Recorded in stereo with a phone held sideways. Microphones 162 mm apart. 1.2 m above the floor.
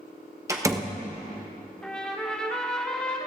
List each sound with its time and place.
0.5 s a door slam: 20° right (ahead or behind), 0.8 m
1.8 s a trumpet: 5° left (ahead or behind), 1.4 m